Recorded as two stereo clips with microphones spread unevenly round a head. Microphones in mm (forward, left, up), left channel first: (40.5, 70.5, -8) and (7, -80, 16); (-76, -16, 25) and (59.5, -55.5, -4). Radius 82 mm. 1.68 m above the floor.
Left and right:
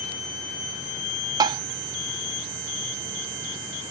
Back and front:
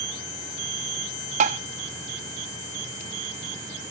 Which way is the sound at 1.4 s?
50° right.